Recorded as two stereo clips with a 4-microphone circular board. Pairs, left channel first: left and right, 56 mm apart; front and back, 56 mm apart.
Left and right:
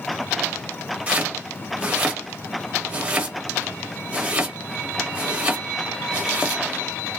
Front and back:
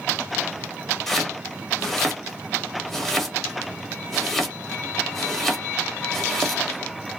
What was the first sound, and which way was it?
Chopping, 80° right.